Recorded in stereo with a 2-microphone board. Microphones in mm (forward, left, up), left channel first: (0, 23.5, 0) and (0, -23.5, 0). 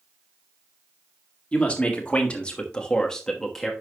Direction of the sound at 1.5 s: 25° left (ahead or behind).